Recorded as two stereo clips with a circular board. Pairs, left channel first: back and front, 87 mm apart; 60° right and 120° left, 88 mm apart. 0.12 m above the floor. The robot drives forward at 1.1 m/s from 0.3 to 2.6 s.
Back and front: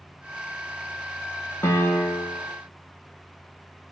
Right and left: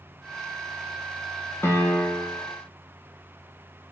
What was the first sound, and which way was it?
A piano, 120° right.